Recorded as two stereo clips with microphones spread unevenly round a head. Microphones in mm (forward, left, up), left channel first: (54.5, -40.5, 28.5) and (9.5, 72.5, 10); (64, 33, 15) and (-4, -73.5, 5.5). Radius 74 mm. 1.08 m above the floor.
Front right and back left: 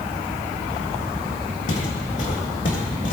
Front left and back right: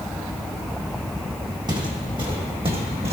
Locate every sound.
1.7 s footsteps: 65° right, 3 m; by 3.1 s 80° right, 3 m